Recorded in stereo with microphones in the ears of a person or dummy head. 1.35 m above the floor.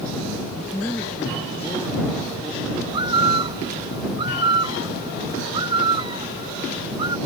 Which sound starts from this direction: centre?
A man speaking, at 0.6 s.